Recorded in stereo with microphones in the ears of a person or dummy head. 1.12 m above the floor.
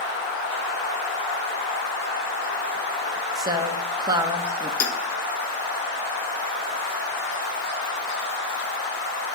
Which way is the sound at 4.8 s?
80° left.